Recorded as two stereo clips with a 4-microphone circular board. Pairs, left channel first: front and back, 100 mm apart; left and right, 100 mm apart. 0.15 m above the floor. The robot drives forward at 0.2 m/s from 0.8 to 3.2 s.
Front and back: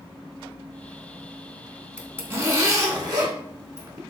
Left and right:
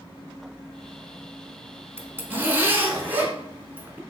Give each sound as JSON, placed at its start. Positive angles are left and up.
{"t": 2.0, "sound": "a zipper", "azimuth_deg": -130, "distance_m": 0.5}